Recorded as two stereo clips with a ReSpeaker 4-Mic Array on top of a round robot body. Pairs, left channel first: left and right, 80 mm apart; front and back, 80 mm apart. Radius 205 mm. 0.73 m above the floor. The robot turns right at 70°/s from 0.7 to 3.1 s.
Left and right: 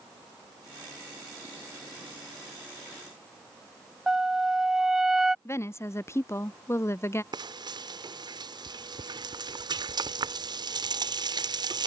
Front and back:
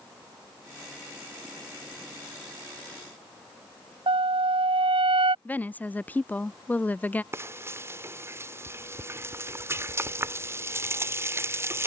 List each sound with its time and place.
4.1 s a flute: 175° right
5.5 s a woman speaking: 60° left
7.3 s frying: 120° right